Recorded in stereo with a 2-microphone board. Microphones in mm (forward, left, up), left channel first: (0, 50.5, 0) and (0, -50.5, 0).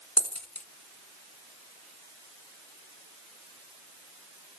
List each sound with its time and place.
0.2 s a dropped coin: 15° left (ahead or behind), 0.8 m